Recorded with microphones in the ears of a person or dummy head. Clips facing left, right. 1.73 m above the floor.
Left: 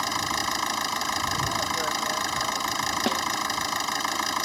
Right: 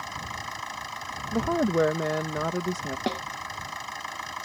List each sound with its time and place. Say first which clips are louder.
0.0 s an engine running: left 8 dB; 75° left (ahead or behind)
1.3 s a woman speaking: right 8 dB; 70° right (ahead or behind)
3.1 s a snare drum: left 1 dB; centre (ahead or behind)